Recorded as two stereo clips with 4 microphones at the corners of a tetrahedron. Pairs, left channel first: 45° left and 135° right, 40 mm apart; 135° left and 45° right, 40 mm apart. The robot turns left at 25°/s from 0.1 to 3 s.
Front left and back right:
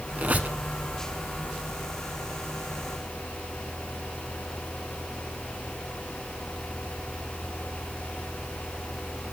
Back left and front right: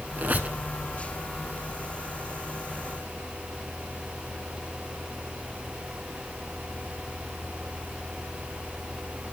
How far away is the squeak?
About 0.6 m.